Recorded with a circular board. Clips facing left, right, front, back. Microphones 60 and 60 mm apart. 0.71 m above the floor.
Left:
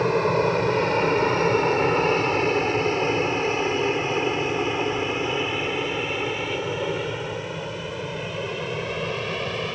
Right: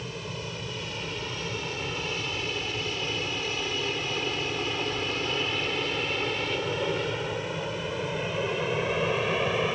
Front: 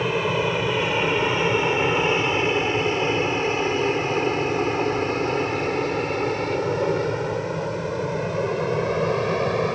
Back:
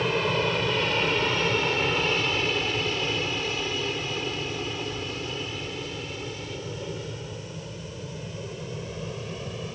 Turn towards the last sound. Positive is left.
turn(degrees=-10)